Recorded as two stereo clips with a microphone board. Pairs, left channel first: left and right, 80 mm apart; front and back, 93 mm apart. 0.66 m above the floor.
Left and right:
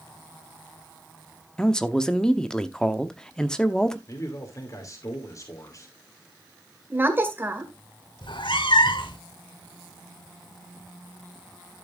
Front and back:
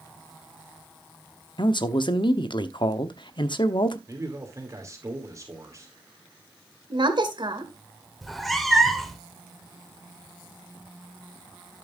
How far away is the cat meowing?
About 1.3 m.